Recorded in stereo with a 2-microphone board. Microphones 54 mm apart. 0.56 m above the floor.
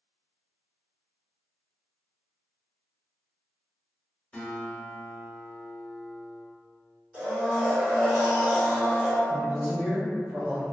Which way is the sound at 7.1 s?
30° right (ahead or behind).